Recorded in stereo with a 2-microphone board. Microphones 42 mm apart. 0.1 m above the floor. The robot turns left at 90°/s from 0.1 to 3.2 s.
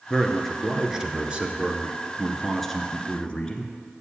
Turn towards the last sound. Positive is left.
turn(degrees=20)  # may be behind; listen again after turning